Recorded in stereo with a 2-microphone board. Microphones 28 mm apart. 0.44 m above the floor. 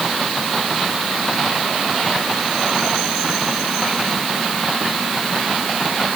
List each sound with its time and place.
Only background noise.